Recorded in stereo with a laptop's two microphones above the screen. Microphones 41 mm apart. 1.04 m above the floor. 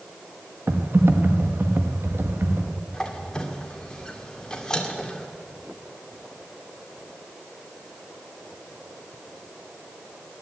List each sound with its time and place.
0.7 s typing on a keyboard: 75° right (ahead or behind), 1.2 m
2.9 s a squeak: 15° left (ahead or behind), 1.9 m